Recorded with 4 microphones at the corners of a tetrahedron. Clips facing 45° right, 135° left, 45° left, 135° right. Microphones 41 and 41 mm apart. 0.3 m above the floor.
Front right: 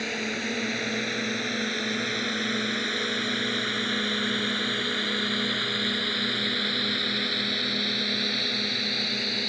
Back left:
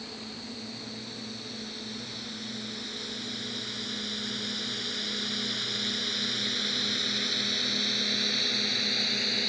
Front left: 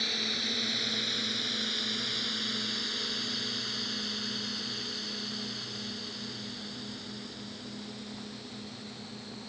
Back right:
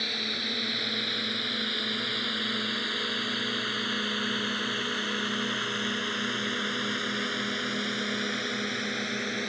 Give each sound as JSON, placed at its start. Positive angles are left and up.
{"t": 0.0, "sound": "a drone", "azimuth_deg": -55}